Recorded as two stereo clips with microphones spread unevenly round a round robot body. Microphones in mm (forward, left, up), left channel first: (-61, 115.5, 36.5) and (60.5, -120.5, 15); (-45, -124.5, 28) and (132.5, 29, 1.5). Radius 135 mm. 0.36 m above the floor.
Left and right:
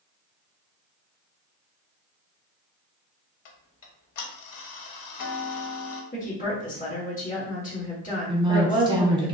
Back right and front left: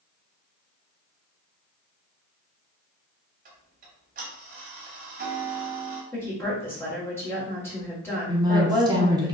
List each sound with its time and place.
3.5 s ticking: 100° left, 0.7 m
6.1 s a woman speaking: 140° left, 1.4 m
8.3 s a woman speaking: 10° right, 1.1 m